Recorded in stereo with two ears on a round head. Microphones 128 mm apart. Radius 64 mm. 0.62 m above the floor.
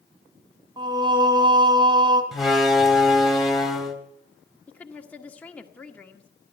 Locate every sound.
0.8 s singing: 30° right (ahead or behind), 1.9 m
2.3 s a door slam: centre (ahead or behind), 2.5 m
4.7 s a woman speaking: 10° left (ahead or behind), 1.5 m